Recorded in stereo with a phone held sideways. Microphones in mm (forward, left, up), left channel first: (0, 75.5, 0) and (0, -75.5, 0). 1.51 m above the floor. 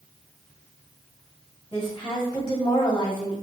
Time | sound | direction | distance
1.7 | a woman speaking | 30° left (ahead or behind) | 1.4 m